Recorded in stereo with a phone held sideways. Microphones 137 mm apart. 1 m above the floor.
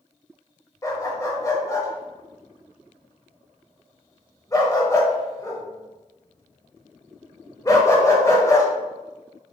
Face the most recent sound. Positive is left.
turn(degrees=25)  # may be behind; listen again after turning